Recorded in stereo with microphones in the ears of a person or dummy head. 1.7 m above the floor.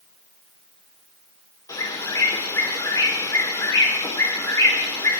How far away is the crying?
I don't hear crying.